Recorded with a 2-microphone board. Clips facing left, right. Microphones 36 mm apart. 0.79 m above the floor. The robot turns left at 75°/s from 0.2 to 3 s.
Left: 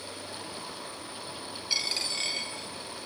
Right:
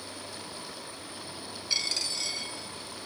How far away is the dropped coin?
About 1.4 m.